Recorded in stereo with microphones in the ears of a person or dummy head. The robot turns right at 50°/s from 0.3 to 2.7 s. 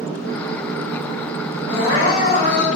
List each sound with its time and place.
1.7 s crying: 40° right, 1.5 m; by 2.7 s 10° left, 1.5 m